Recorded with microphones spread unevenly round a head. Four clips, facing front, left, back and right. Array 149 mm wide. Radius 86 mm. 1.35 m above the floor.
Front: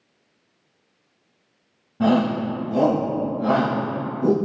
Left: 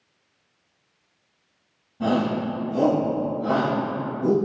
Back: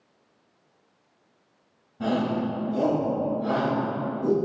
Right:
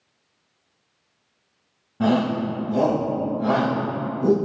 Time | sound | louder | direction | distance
2.0 | a shout | right 2 dB, front 6 dB | 35° right | 2.0 m